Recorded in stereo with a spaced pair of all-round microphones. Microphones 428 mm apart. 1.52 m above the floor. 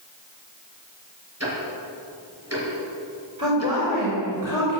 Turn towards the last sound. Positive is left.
turn(degrees=-45)  # may be behind; listen again after turning